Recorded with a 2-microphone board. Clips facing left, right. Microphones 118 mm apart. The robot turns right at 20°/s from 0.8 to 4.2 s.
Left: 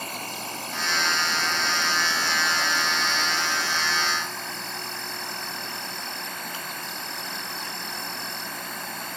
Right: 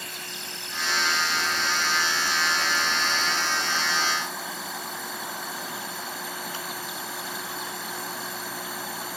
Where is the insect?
120° left; by 9.2 s 175° right.